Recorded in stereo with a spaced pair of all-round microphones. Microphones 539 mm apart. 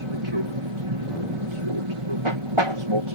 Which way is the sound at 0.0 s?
60° right (ahead or behind).